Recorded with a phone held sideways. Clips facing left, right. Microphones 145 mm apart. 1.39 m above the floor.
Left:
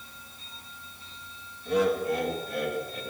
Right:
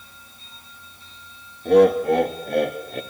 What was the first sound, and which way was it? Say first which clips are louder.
Laughter: right 10 dB; 75° right (ahead or behind).